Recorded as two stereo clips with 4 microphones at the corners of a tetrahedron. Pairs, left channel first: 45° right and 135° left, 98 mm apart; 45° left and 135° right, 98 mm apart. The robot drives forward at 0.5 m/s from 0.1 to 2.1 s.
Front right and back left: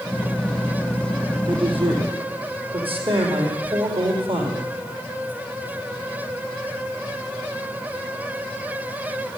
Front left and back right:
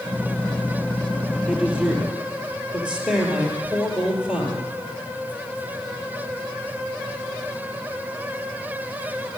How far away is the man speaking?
About 4 m.